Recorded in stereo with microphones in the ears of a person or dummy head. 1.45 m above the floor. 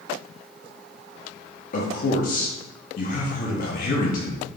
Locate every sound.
1.7 s a man speaking: 50° left (ahead or behind), 0.6 m